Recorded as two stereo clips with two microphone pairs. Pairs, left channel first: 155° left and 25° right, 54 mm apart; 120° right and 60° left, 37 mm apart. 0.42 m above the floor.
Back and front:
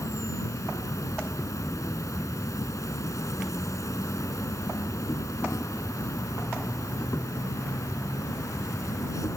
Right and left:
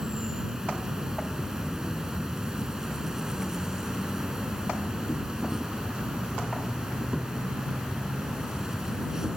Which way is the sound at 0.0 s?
135° left.